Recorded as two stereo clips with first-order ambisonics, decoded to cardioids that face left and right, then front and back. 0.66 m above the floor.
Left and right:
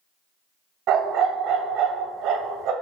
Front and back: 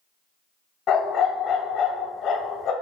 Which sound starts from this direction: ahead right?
A dog barking, at 0.9 s.